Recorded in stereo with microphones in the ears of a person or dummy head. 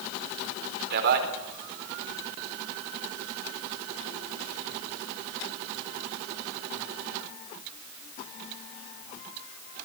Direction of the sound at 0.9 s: 55° right (ahead or behind).